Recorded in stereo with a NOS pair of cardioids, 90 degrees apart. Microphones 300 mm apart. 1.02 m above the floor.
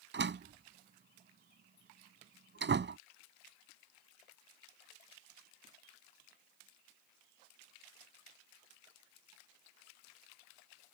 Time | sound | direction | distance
0.1 | a door slam | 40° right | ?